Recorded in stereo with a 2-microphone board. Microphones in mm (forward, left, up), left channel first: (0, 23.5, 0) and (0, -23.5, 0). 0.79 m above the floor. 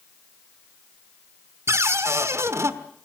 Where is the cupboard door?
85° right, 1.4 m.